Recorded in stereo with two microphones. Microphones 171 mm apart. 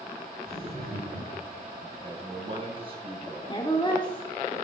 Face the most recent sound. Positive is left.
turn(degrees=30)  # may be behind; listen again after turning